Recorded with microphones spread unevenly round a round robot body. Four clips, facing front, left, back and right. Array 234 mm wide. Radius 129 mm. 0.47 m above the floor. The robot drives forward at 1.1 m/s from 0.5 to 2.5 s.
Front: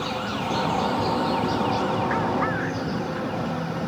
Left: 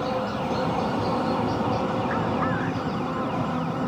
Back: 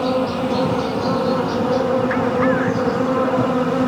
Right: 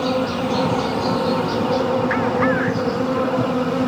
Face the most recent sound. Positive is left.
turn(degrees=-160)